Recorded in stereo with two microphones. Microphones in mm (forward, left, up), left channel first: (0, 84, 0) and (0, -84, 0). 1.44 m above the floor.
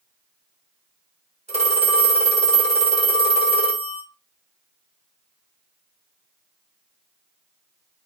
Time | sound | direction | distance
1.5 | a phone ringing | 40° right (ahead or behind) | 1.0 m